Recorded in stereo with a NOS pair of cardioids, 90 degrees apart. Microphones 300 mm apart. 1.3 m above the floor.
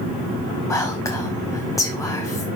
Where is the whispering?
10° left, 0.9 m.